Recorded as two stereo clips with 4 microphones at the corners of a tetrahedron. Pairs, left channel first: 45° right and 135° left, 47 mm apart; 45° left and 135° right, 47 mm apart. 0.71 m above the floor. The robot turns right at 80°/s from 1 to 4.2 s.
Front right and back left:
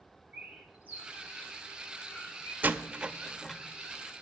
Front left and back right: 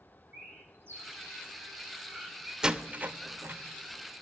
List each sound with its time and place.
0.3 s a bird: 175° right, 3.5 m; by 2.5 s 50° right, 3.5 m
2.6 s a door slam: 160° left, 0.6 m; by 4.2 s 75° right, 0.6 m